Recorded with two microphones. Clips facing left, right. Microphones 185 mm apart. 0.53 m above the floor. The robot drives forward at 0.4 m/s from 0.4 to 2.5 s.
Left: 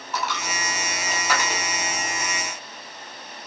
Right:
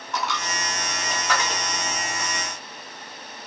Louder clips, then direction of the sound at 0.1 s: Even; 5° left (ahead or behind).